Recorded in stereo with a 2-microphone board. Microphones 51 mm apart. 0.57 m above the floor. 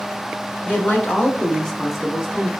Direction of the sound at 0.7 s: 45° left (ahead or behind).